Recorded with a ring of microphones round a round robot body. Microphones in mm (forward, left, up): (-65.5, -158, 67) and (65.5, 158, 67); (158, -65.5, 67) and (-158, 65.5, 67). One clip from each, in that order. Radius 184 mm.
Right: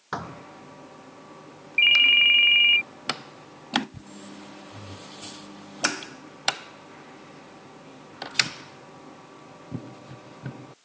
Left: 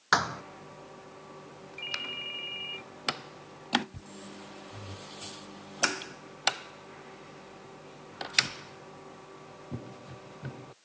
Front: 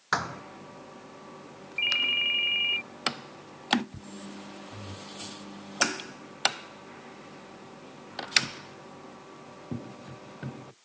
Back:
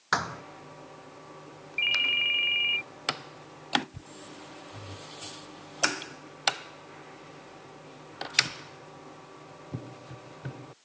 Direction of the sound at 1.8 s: 120° right.